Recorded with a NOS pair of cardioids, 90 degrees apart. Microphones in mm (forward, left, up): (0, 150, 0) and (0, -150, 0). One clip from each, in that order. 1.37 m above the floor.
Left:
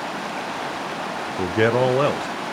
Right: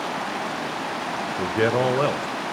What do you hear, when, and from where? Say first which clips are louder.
1.4 s a man speaking: left 3 dB; 15° left, 0.5 m